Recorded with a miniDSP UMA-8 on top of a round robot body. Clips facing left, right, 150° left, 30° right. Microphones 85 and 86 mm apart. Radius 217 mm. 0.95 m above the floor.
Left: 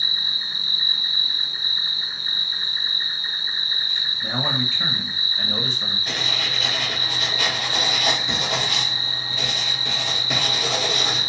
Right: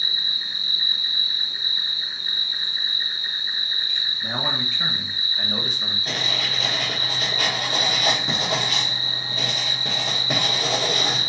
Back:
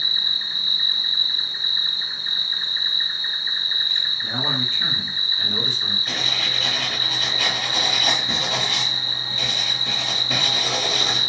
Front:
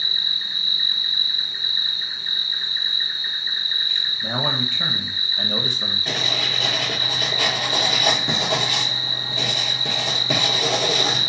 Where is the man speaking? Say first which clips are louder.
Left 2 dB, front 3 dB; 5° right, 0.9 m.